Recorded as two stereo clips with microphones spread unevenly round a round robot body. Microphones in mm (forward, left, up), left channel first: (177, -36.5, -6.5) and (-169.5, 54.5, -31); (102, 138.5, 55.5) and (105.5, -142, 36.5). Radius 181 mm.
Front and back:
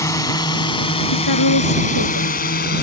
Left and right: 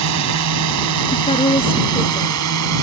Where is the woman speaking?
20° left.